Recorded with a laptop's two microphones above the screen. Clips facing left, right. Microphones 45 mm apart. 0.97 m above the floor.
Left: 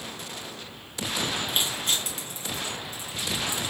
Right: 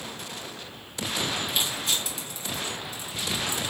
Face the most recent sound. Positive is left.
turn(degrees=40)  # may be behind; listen again after turning